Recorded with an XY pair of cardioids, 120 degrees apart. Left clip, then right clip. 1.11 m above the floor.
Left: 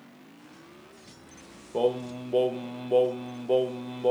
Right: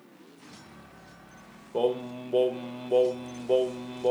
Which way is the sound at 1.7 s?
5° left.